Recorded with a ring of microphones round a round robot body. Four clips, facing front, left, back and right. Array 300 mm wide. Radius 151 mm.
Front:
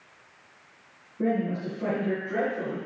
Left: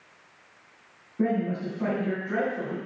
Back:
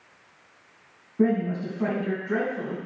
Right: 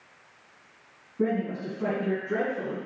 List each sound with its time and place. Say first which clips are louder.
1.2 s a man speaking: left 1 dB, back 3 dB; 165° left, 4.5 m